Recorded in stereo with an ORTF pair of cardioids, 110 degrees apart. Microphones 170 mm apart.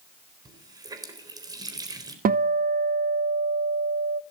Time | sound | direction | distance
0.5 | a running tap | 25° right | 3.5 m
2.2 | a guitar | 60° right | 0.6 m